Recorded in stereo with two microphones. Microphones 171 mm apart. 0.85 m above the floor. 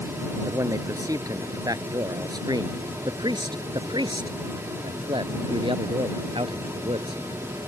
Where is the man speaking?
20° right (ahead or behind); by 7.2 s 35° right (ahead or behind).